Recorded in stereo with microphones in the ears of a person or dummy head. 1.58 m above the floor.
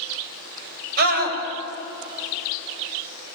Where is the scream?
55° right (ahead or behind), 6.5 m.